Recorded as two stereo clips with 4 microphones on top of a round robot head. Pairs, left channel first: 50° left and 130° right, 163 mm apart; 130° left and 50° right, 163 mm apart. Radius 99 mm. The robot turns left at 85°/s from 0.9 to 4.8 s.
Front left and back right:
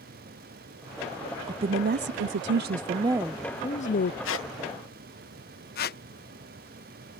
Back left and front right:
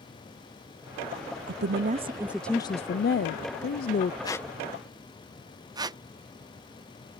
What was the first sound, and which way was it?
A woman speaking, 60° right.